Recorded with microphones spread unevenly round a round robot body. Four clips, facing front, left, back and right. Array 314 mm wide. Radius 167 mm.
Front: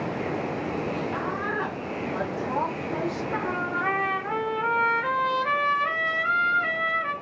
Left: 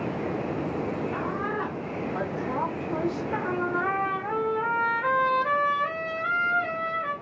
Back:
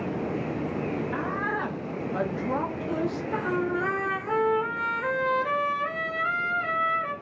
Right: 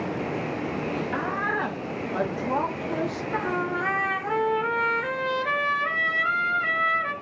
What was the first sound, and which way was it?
A woman speaking, 105° right.